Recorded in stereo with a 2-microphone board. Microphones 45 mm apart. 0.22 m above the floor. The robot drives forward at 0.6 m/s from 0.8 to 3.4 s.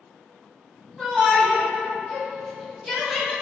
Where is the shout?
5° left (ahead or behind), 1.1 m.